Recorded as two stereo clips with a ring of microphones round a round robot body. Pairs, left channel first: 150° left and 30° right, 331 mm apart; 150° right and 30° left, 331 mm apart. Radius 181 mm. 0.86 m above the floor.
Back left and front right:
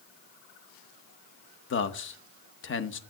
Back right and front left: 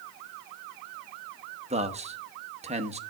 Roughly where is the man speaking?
Left.